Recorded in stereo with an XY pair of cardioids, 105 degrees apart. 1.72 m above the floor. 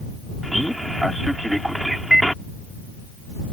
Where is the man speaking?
5° right.